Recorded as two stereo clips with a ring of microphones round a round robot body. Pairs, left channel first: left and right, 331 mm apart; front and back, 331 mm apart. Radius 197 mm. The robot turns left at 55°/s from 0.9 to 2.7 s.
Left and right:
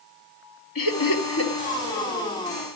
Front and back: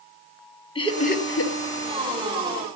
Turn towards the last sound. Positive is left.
turn(degrees=-25)